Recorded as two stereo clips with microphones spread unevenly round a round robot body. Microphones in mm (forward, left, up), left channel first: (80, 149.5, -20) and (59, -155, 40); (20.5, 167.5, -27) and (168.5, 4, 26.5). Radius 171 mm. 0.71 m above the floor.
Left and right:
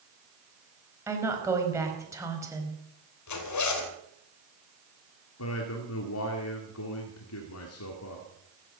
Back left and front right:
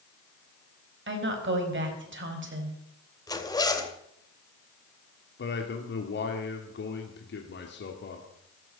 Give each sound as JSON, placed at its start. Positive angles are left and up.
{"t": 1.1, "sound": "a woman speaking", "azimuth_deg": -10, "distance_m": 4.5}
{"t": 3.3, "sound": "a zipper", "azimuth_deg": 60, "distance_m": 2.5}
{"t": 5.4, "sound": "a man speaking", "azimuth_deg": 120, "distance_m": 2.0}